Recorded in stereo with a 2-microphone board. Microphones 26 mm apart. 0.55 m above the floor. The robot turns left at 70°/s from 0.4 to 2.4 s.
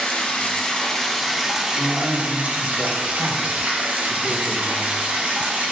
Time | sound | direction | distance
0.0 | running water | 60° left | 1.4 m
1.7 | a man speaking | 120° right | 1.3 m